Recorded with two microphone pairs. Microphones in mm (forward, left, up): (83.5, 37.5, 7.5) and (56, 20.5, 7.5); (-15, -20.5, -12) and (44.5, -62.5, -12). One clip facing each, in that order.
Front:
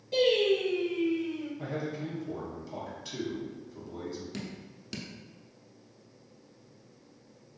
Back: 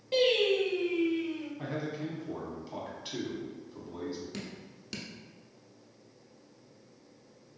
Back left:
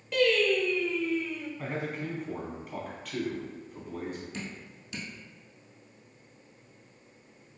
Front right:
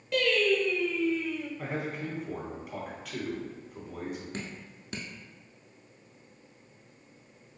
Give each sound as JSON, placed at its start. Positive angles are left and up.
{"t": 0.1, "sound": "singing", "azimuth_deg": -130, "distance_m": 1.0}
{"t": 1.6, "sound": "a man speaking", "azimuth_deg": -115, "distance_m": 1.0}
{"t": 4.3, "sound": "dripping", "azimuth_deg": -50, "distance_m": 0.7}